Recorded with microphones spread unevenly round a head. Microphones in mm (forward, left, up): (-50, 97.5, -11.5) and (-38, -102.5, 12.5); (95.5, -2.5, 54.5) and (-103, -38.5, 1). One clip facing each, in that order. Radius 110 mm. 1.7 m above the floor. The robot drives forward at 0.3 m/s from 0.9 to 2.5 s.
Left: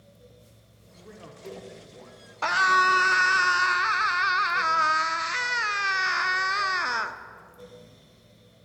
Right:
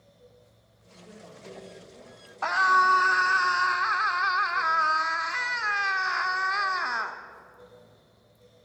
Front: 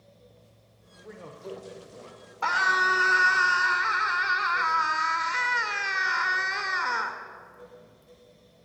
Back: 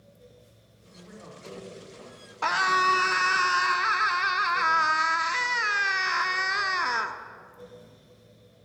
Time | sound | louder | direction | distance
1.0 | a man speaking | left 3 dB, front 4 dB | 55° left | 1.5 m
2.4 | a scream | even, back 2 dB | 140° left | 0.8 m